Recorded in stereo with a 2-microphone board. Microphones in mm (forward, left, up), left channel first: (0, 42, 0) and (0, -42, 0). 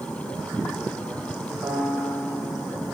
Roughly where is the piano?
Right.